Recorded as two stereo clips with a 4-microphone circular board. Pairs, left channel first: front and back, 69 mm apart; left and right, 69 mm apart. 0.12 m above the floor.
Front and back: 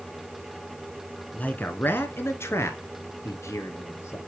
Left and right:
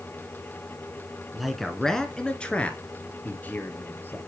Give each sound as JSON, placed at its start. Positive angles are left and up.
{"t": 1.3, "sound": "a man speaking", "azimuth_deg": -10, "distance_m": 1.1}